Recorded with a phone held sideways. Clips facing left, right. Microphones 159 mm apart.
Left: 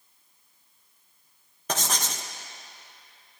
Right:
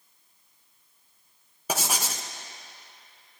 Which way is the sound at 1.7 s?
10° right (ahead or behind).